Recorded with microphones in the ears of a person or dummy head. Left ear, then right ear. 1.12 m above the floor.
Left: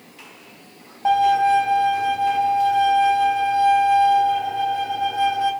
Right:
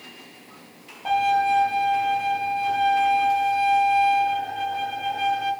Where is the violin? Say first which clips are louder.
Left 4 dB; 45° left (ahead or behind), 1.4 m.